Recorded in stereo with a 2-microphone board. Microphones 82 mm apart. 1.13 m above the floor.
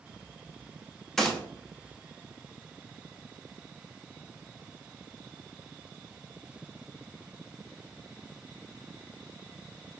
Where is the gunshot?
5° left (ahead or behind), 0.7 m.